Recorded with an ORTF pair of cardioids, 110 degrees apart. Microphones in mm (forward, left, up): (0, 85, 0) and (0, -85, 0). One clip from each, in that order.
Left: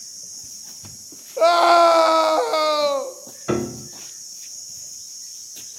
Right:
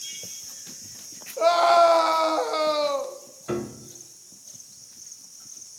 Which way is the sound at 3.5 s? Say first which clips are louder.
Left 6 dB; 40° left.